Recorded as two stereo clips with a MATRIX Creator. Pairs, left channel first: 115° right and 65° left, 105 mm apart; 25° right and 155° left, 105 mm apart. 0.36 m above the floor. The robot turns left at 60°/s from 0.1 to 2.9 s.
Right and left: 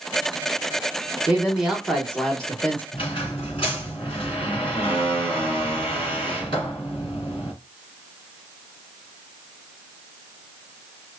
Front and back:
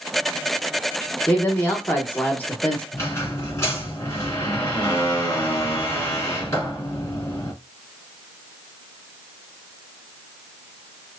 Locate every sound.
1.3 s a man speaking: 20° left, 1.0 m; by 2.8 s 75° right, 1.0 m
2.9 s a squeak: 85° right, 3 m